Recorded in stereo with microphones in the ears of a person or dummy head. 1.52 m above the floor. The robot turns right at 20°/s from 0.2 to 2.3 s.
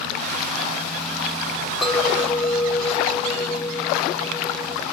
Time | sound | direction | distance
1.8 | a clink | centre (ahead or behind) | 3.5 m